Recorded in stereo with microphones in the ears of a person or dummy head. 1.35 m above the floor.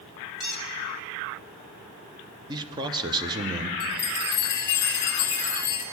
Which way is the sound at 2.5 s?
20° right (ahead or behind).